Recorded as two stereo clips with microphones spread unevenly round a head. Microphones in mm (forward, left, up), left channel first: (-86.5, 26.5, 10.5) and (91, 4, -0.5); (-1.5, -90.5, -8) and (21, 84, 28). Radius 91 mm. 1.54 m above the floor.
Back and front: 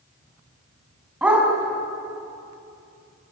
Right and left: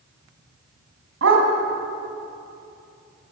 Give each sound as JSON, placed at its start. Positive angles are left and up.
{"t": 1.2, "sound": "a dog barking", "azimuth_deg": 75, "distance_m": 4.5}